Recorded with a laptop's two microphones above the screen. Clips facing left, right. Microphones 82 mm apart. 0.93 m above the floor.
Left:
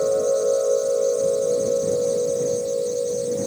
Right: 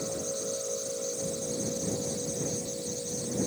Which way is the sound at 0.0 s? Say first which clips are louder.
Left 16 dB; 70° left (ahead or behind).